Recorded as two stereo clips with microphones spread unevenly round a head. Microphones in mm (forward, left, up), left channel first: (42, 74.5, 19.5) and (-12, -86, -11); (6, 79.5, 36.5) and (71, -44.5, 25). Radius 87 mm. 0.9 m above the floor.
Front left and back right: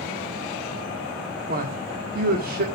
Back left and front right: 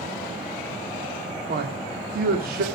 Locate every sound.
1.5 s a man speaking: 75° right, 1.9 m